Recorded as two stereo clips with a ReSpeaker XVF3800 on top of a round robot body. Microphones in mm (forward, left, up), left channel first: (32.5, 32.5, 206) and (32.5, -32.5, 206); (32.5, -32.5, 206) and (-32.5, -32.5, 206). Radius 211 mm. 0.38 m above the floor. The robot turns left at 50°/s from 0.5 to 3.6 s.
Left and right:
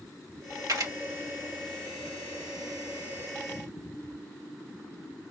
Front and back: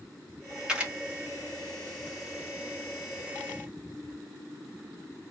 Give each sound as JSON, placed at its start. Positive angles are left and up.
{"t": 0.7, "sound": "a camera shutter", "azimuth_deg": -105, "distance_m": 2.0}